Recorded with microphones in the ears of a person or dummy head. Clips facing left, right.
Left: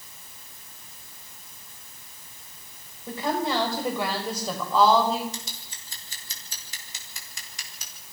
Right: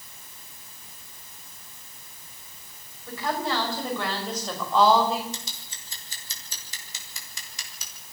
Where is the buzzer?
I don't hear a buzzer.